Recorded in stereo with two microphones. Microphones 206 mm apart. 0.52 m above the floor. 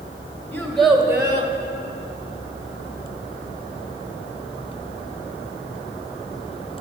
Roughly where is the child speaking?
Centre.